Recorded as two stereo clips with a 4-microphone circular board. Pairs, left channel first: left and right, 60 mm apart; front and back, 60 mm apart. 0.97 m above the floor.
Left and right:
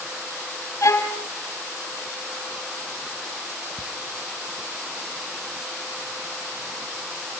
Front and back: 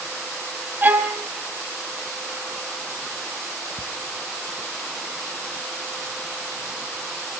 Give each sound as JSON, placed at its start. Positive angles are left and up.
{"t": 0.8, "sound": "a violin", "azimuth_deg": 125, "distance_m": 2.5}
{"t": 3.8, "sound": "ticking", "azimuth_deg": 100, "distance_m": 1.1}